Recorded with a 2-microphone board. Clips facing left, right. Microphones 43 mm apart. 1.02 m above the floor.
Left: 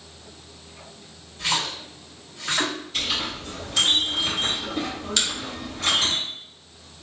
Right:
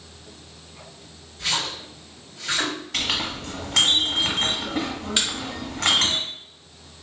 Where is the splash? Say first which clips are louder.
Left 1 dB; 60° left (ahead or behind), 1.4 m.